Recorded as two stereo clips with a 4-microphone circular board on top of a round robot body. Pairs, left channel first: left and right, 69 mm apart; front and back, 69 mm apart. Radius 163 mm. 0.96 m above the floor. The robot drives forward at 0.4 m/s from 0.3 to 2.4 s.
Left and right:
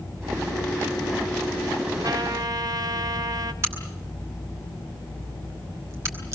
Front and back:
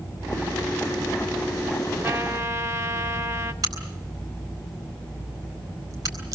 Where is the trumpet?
125° right, 1.8 m; by 3.5 s 130° right, 1.9 m.